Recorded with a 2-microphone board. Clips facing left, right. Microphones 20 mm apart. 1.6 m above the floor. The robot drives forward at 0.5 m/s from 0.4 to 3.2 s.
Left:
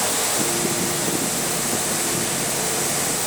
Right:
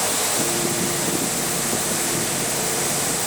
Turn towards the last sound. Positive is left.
No sound to turn to.